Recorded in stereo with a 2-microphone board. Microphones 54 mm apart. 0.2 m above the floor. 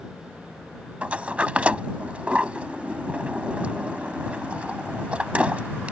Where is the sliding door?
25° right (ahead or behind).